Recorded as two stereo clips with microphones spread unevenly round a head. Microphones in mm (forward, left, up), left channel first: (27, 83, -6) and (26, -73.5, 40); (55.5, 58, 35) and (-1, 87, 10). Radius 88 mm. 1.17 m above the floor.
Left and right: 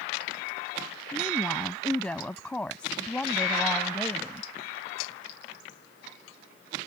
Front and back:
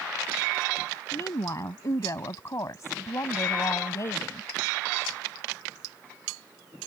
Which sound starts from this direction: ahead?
A woman speaking, at 1.1 s.